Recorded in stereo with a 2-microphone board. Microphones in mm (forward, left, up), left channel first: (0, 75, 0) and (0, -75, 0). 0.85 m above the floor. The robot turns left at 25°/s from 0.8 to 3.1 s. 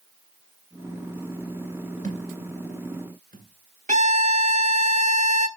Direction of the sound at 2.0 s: 65° right (ahead or behind).